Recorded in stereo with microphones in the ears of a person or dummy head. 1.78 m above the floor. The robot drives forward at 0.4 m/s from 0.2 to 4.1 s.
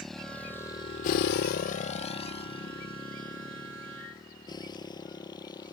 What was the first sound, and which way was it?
A motorcycle, centre (ahead or behind).